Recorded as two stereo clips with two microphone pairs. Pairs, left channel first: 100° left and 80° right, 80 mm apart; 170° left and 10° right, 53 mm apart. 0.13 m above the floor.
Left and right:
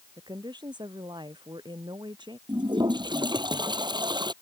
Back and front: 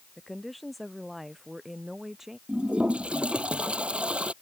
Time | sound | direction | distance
0.2 | a woman speaking | 105° right | ?
2.5 | a toilet flushing | 80° right | ?